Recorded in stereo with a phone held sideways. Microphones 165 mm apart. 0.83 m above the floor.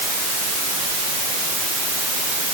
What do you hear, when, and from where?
Only background noise.